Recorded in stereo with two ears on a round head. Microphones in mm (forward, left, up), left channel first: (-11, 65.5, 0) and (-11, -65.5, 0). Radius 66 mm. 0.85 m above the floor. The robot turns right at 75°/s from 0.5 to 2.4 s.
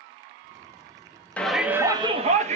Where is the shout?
170° left, 1.4 m; by 2.6 s 115° right, 1.4 m.